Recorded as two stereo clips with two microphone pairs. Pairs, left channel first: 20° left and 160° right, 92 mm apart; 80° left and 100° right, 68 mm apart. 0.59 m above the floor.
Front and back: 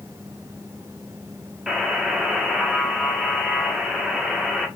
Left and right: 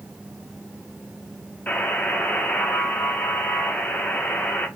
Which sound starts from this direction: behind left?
A buzzer, at 1.7 s.